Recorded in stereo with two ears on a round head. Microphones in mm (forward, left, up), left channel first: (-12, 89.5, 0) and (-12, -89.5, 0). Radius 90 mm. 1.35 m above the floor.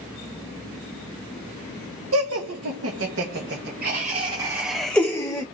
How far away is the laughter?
About 1.3 m.